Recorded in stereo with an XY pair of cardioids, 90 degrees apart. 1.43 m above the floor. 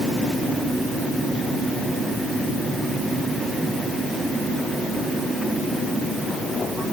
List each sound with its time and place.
Only background noise.